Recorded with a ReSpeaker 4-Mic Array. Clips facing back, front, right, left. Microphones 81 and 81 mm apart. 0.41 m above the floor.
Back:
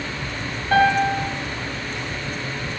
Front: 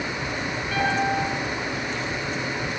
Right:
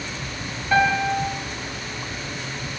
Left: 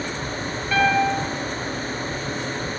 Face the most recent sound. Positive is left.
turn(degrees=-160)